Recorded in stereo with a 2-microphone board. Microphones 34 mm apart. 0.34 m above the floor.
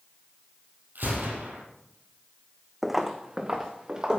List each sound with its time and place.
0.9 s a gunshot: 85° right, 4 m
2.8 s footsteps: 5° right (ahead or behind), 1.0 m; by 4.2 s 20° right (ahead or behind), 3 m